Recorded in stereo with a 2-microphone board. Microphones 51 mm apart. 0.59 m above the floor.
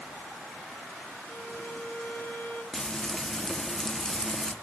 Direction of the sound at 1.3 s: 25° left (ahead or behind).